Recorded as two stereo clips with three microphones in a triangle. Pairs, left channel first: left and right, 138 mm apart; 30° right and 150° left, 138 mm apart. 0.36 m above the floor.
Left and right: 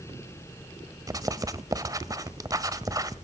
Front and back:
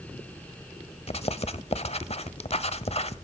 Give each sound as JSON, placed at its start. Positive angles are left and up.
{"t": 1.1, "sound": "writing", "azimuth_deg": -35, "distance_m": 1.2}